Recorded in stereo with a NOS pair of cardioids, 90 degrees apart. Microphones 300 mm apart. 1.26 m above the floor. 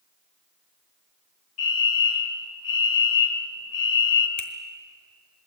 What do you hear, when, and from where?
1.6 s a fire alarm: 60° left, 3 m
4.4 s a finger snap: 45° left, 3.5 m